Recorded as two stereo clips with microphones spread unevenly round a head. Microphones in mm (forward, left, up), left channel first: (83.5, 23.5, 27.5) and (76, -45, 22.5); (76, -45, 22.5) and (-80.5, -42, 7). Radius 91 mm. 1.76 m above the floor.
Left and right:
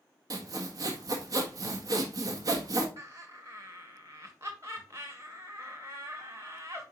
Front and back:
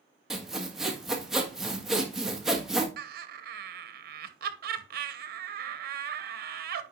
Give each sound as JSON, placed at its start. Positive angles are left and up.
{"t": 0.3, "sound": "sawing", "azimuth_deg": -90, "distance_m": 1.4}
{"t": 3.0, "sound": "laughter", "azimuth_deg": -165, "distance_m": 1.0}